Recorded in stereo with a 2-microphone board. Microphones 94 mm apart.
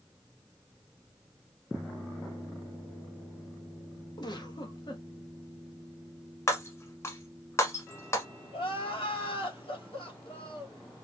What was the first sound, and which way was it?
A giggle, 45° left (ahead or behind).